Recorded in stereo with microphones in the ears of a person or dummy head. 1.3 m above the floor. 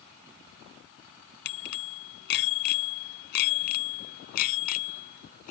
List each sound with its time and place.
1.4 s a bicycle bell: 60° left (ahead or behind); by 5.5 s 45° left (ahead or behind)